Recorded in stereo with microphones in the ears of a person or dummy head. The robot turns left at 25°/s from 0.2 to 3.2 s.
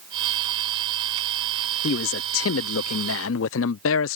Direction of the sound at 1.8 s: 120° left.